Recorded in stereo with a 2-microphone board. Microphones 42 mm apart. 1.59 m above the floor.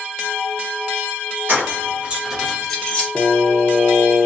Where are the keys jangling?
50° right (ahead or behind), 1.2 m; by 3.1 s 30° left (ahead or behind), 1.1 m.